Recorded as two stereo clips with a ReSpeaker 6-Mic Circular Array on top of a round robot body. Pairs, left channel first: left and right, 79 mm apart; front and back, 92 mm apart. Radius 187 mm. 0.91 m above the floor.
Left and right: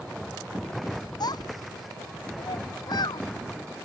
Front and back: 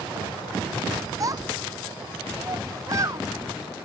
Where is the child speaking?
125° left.